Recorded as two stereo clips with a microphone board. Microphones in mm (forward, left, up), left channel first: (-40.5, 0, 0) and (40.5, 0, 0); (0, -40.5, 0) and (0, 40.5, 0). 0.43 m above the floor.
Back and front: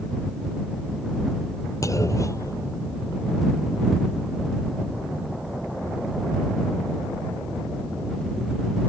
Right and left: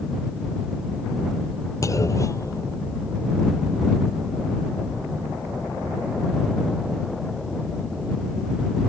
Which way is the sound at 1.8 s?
135° right.